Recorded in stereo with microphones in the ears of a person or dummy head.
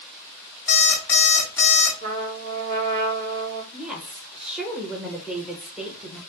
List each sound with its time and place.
0.7 s an alarm clock: 15° left (ahead or behind), 3 m
2.0 s a trumpet: 55° right (ahead or behind), 1.8 m
3.7 s a woman speaking: 5° right (ahead or behind), 1.1 m